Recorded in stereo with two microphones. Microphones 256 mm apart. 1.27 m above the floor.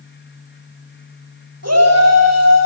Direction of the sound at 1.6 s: 85° right.